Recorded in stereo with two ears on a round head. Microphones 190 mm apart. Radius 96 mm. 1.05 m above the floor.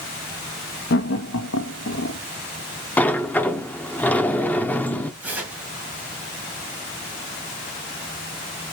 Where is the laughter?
50° left (ahead or behind), 1.0 m; by 2.2 s 55° left (ahead or behind), 1.2 m.